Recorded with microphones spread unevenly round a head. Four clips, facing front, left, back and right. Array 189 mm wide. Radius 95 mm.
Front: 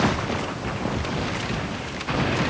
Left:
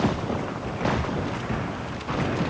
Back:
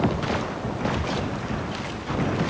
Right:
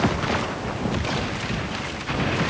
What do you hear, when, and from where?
Only background noise.